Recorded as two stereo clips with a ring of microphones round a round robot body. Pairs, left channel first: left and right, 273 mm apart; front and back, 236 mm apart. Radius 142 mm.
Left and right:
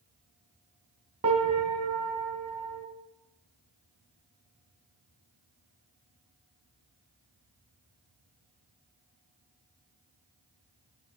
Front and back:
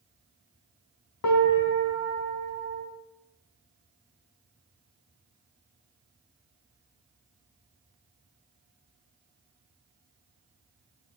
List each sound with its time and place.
1.2 s a piano: 25° right, 1.2 m